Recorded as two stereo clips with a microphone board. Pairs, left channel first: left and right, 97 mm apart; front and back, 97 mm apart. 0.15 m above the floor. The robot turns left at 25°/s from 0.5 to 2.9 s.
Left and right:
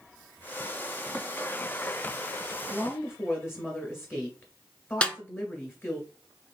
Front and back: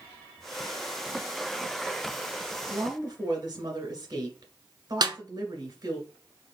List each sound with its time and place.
2.7 s a woman speaking: 150° left, 1.7 m; by 6.0 s 145° left, 1.7 m
5.0 s a snare drum: 165° left, 0.5 m